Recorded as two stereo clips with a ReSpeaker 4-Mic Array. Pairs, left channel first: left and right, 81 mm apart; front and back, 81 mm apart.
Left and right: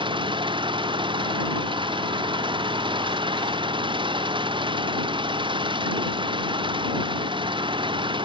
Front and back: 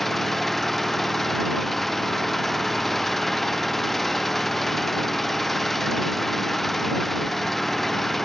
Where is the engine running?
85° right.